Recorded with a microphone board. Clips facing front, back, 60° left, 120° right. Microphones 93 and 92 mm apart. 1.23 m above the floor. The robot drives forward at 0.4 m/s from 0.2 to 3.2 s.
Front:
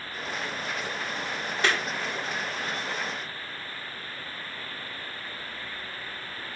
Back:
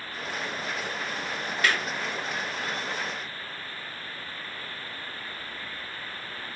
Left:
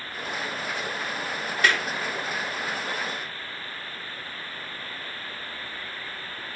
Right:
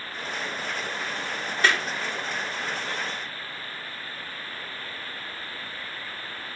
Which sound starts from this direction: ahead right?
A clap, at 1.6 s.